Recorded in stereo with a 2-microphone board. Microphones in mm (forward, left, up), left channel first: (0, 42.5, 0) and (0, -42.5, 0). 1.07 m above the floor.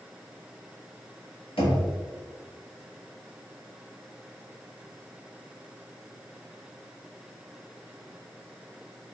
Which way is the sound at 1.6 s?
85° left.